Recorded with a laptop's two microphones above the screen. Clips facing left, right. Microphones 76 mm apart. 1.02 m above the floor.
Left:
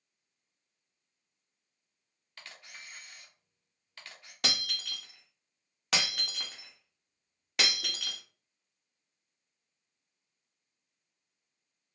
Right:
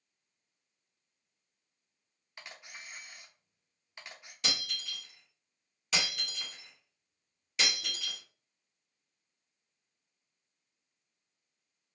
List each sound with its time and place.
2.4 s a camera shutter: 15° right (ahead or behind), 0.6 m
4.4 s breaking glass: 65° left (ahead or behind), 0.7 m